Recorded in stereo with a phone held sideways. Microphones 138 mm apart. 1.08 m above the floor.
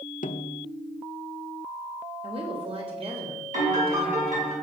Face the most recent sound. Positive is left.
turn(degrees=-65)  # may be behind; listen again after turning